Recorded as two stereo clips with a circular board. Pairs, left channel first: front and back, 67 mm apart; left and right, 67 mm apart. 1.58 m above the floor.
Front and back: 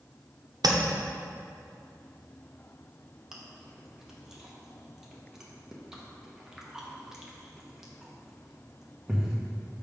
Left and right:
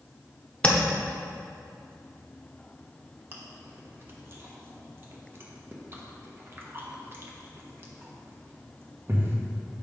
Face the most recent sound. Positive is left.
turn(degrees=-105)